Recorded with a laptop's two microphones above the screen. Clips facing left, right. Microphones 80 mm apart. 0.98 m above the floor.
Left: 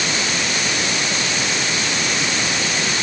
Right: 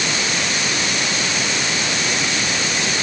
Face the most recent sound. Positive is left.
No sound to turn to.